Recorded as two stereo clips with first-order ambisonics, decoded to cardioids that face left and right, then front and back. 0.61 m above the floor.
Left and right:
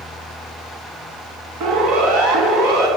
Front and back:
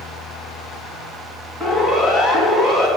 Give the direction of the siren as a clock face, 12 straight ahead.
4 o'clock.